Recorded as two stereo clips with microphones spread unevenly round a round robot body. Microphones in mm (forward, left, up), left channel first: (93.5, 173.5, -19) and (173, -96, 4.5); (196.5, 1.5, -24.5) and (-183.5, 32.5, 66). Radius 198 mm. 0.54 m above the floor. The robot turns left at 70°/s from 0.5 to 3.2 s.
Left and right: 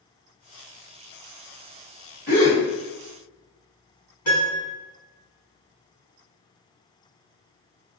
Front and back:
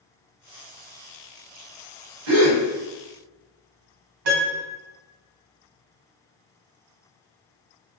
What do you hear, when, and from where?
2.3 s a gasp: 170° right, 1.8 m; by 2.6 s 165° left, 1.8 m
4.2 s a piano: 150° left, 1.3 m